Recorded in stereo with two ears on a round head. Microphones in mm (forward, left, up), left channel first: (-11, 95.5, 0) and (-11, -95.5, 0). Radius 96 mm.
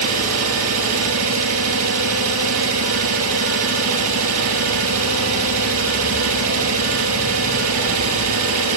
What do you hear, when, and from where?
0.0 s an engine running: 75° right (ahead or behind), 3.5 m